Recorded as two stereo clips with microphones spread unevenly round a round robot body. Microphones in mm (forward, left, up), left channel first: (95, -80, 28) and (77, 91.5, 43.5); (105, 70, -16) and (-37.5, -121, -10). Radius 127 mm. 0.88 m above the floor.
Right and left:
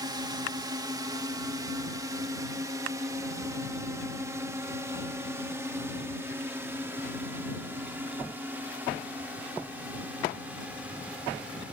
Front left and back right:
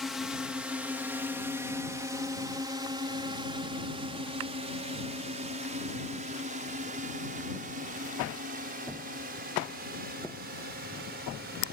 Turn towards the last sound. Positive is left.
turn(degrees=180)